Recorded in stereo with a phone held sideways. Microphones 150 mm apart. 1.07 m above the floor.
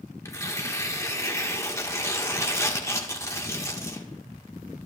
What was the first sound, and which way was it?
Tearing paper, 20° left (ahead or behind).